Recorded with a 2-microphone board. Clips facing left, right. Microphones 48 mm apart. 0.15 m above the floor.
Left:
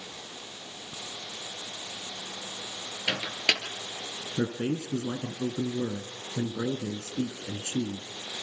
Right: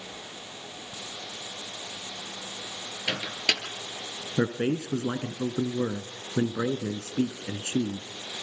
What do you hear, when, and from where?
3.1 s a microwave: 15° left (ahead or behind), 2.5 m
4.4 s a man speaking: 45° right (ahead or behind), 1.4 m